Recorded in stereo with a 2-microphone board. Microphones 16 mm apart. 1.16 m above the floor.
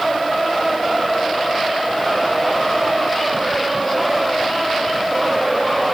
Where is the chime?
No chime in this recording.